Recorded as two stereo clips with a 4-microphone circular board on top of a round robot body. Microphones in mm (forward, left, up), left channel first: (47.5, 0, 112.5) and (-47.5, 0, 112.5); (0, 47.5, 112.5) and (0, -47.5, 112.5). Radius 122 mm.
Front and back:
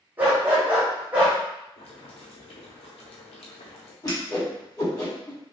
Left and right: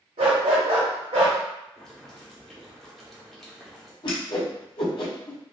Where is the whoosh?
55° left, 1.3 m.